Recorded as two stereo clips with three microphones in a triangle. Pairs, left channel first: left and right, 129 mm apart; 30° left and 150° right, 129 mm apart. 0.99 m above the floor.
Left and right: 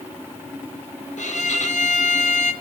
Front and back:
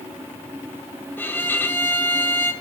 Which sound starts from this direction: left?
A violin, at 1.2 s.